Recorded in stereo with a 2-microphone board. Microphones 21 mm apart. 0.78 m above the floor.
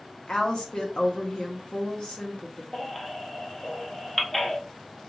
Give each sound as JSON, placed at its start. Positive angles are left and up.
{"t": 0.3, "sound": "a woman speaking", "side_deg": 50, "distance_m": 0.8}
{"t": 2.7, "sound": "a baby crying", "side_deg": 20, "distance_m": 0.6}